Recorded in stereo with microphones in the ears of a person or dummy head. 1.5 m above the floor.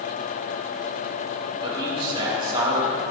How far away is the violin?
No violin in this recording.